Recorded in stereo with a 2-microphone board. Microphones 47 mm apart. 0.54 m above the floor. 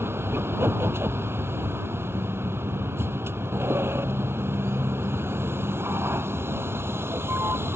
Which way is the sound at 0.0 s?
60° right (ahead or behind).